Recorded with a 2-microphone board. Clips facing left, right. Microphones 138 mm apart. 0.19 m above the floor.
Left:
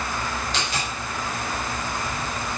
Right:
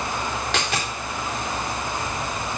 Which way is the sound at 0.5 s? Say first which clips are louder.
Right 2 dB; 90° right.